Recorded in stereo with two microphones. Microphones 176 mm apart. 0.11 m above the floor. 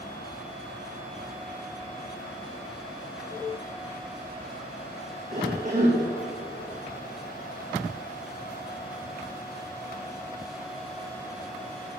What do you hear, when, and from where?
5.3 s a cough: 45° right (ahead or behind), 6 m